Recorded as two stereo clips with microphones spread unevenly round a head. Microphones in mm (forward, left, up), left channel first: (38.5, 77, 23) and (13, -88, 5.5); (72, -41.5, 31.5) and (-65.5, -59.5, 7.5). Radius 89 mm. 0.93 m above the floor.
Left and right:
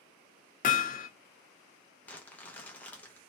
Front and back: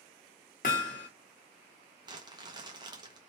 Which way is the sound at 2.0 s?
165° left.